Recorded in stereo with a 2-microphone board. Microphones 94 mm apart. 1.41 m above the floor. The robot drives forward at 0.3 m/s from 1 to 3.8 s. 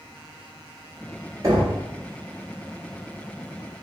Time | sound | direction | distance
1.4 | knocking | 35° right (ahead or behind) | 1.2 m